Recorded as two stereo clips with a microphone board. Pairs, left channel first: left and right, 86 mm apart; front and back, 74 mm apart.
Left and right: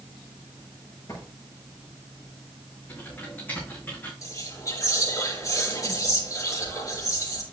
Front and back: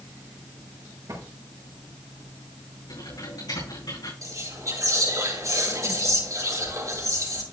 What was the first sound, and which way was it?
A drawer, 140° left.